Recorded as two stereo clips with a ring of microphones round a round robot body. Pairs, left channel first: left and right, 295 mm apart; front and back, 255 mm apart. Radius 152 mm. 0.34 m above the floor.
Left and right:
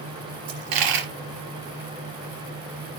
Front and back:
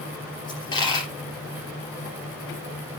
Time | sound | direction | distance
0.5 | a dropped coin | 75° right | 3 m